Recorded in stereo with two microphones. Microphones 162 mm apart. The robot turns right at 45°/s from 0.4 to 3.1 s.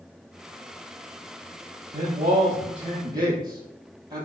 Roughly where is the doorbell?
No doorbell in this recording.